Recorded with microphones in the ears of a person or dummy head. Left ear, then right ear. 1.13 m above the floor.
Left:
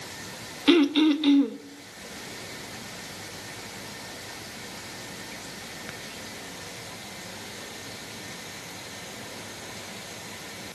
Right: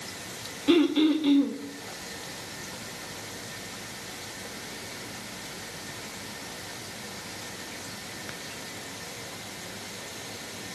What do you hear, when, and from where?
0.7 s throat clearing: 65° left (ahead or behind), 0.7 m